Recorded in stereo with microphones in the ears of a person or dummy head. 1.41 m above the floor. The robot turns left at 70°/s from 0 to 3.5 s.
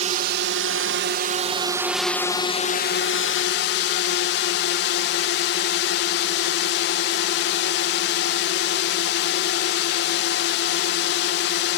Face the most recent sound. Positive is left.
turn(degrees=75)